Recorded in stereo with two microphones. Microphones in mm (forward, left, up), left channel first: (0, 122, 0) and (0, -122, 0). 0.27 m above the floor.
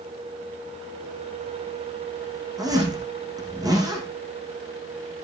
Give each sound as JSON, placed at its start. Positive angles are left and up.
{"t": 2.6, "sound": "a zipper", "side_deg": -15, "distance_m": 7.5}